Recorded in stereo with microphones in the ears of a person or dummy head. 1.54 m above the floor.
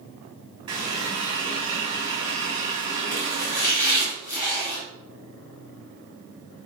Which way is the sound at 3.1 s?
10° left (ahead or behind).